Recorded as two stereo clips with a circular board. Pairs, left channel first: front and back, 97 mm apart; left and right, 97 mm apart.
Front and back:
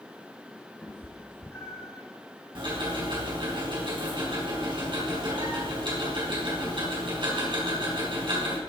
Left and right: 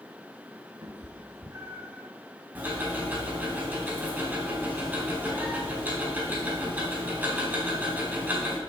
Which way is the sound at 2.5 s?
160° right.